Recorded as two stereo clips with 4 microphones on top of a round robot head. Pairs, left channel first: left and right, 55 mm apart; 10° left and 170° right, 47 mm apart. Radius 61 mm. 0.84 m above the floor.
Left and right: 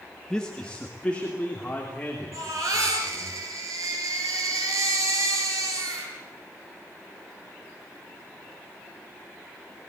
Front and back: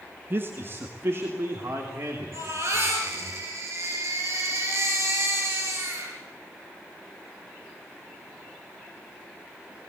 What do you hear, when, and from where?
0.3 s a man speaking: 165° left, 1.5 m; by 3.3 s 160° left, 4.5 m
2.3 s a baby crying: 125° right, 6 m